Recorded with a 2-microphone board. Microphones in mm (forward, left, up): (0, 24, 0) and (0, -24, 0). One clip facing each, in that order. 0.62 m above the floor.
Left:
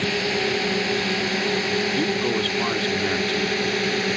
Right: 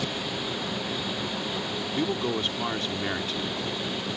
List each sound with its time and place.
0.0 s a drone: 85° left; by 4.2 s 80° left
1.9 s a man speaking: 5° left (ahead or behind)